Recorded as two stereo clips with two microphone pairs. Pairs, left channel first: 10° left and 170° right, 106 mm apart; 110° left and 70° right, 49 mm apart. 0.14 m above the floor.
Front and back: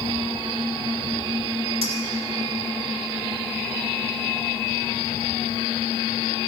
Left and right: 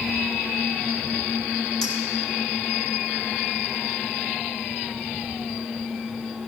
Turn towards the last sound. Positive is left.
turn(degrees=-170)